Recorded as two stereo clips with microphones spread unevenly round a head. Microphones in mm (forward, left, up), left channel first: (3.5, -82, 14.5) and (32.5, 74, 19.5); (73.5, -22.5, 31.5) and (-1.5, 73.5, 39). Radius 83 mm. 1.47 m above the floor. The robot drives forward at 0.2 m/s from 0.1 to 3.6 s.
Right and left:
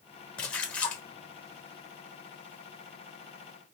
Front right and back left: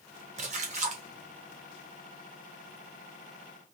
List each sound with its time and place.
0.4 s a splash: 175° left, 0.8 m